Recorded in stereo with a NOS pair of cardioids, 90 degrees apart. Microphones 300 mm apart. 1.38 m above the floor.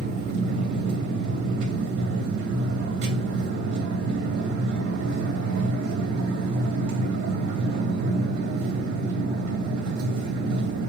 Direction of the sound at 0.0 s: 65° right.